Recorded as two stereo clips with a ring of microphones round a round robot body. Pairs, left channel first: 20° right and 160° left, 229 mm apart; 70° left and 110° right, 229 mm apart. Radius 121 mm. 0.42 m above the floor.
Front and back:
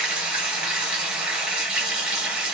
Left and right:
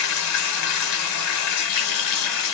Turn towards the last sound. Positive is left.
turn(degrees=70)